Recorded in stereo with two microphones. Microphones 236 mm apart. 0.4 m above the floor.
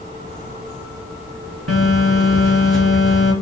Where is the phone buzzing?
80° right, 0.8 m.